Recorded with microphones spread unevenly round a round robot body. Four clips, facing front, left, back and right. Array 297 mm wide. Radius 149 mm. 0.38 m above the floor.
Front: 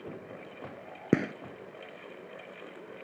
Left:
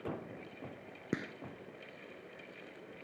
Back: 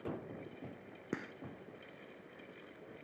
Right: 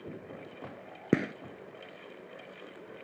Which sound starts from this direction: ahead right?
A gunshot, at 1.1 s.